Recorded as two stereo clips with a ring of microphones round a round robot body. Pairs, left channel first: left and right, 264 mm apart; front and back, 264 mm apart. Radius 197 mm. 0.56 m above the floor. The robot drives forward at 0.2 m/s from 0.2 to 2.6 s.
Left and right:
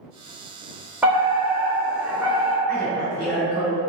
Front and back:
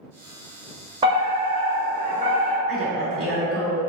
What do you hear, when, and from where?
1.0 s a fire alarm: 165° right, 1.6 m; by 2.6 s 170° right, 1.8 m
2.7 s a woman speaking: 170° left, 1.9 m